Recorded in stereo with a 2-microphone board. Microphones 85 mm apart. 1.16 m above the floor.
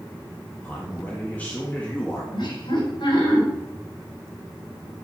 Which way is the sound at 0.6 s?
20° left (ahead or behind).